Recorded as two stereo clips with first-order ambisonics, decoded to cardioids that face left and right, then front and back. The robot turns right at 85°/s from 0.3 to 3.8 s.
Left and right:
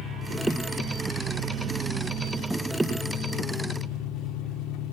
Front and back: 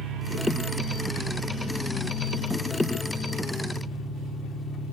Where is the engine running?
145° left, 2.5 m; by 4.9 s 80° left, 2.5 m.